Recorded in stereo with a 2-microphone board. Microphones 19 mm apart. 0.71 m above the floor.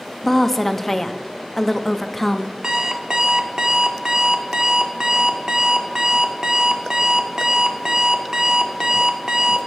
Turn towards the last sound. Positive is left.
turn(degrees=-35)  # may be behind; listen again after turning